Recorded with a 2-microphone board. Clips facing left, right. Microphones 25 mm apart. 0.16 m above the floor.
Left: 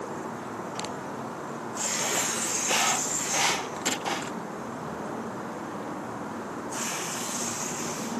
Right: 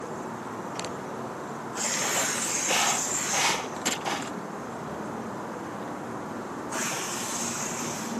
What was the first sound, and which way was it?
Tearing paper, 75° right (ahead or behind).